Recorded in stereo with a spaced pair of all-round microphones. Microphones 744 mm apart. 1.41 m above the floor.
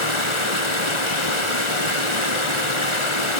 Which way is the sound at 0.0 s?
35° left (ahead or behind).